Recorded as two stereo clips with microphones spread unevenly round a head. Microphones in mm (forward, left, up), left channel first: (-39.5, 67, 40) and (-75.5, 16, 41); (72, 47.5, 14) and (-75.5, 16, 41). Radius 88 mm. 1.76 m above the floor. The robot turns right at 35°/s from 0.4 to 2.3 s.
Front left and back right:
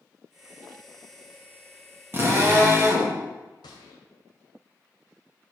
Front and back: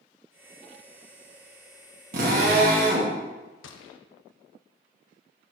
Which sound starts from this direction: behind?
A drill, at 2.1 s.